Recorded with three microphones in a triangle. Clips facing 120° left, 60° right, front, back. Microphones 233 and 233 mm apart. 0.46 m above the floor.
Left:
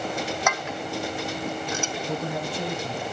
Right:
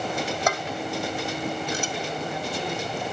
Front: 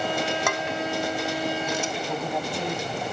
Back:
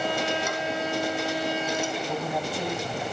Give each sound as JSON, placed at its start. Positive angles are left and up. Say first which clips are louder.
{"t": 0.5, "sound": "dishes clattering", "louder": "right 2 dB, front 1 dB", "azimuth_deg": -5, "distance_m": 2.0}
{"t": 2.1, "sound": "a man speaking", "louder": "left 1 dB, even", "azimuth_deg": 95, "distance_m": 4.0}